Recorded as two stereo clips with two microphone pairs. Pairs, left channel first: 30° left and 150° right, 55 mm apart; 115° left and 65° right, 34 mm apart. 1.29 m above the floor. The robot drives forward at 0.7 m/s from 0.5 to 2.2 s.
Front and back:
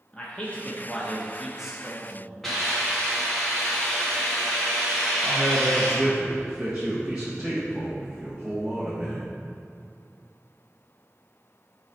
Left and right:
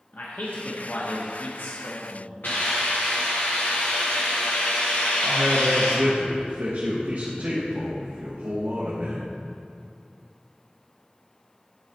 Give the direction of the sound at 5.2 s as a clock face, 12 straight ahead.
2 o'clock.